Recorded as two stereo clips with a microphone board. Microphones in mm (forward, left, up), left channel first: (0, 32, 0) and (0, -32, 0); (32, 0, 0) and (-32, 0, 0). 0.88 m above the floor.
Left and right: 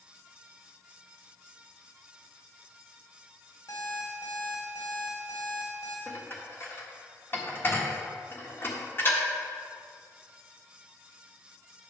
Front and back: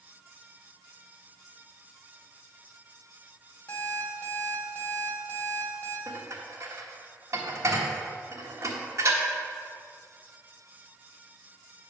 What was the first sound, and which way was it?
An alarm clock, 60° left.